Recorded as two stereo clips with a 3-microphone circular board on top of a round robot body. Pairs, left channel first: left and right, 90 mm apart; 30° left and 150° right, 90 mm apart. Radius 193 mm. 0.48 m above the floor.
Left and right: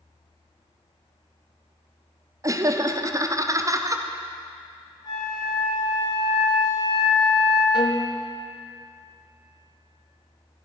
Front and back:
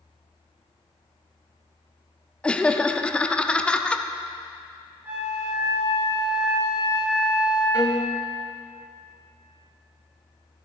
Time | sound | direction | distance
2.4 | laughter | 45° right | 1.2 m
5.0 | a flute | 135° left | 4 m
7.7 | a violin | 130° left | 1.1 m